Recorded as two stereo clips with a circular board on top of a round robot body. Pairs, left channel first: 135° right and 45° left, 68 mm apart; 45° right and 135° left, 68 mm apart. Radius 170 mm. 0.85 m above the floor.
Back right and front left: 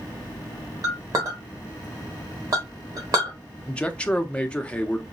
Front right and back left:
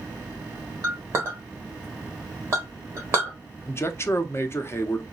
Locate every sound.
0.8 s a clink: 80° left, 1.2 m
3.7 s a man speaking: 70° right, 0.7 m